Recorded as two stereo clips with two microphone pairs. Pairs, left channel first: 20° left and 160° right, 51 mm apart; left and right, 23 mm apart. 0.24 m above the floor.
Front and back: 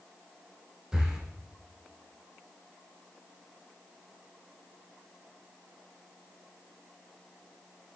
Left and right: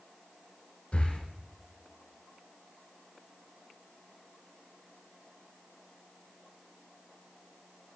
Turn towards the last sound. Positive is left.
turn(degrees=125)